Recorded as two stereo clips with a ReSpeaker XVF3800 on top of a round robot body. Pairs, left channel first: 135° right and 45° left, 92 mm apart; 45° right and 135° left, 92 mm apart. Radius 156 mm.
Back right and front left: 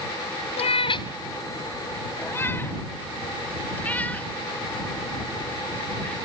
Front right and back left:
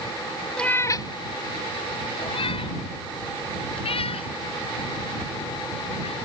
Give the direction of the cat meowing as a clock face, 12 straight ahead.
4 o'clock.